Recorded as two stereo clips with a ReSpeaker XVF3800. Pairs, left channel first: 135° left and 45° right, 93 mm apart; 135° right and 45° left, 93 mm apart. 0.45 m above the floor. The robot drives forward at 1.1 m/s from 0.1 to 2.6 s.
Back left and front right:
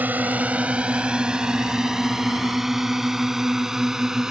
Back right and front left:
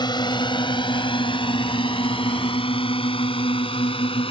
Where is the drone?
115° right; by 4.3 s 130° right.